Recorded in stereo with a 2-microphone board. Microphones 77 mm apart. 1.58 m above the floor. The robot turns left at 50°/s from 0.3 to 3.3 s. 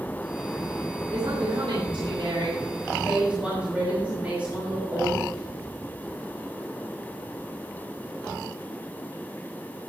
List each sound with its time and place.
1.1 s a woman speaking: 55° right, 6 m; by 5.2 s 165° right, 6 m